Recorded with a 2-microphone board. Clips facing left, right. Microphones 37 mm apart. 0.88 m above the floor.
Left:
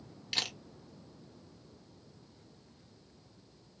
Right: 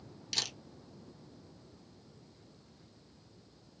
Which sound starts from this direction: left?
A camera shutter, at 0.3 s.